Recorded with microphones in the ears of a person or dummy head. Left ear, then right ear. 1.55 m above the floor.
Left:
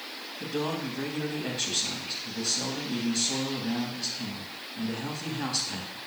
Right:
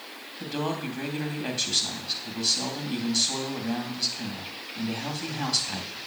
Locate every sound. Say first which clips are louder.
0.4 s a man speaking: right 1 dB; 30° right (ahead or behind), 3 m